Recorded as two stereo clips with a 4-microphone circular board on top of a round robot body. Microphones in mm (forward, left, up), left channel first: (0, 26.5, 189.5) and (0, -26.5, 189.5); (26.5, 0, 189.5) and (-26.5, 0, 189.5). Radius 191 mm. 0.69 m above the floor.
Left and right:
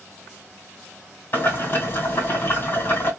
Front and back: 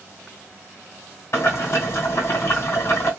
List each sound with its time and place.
1.3 s boiling: 40° left, 2 m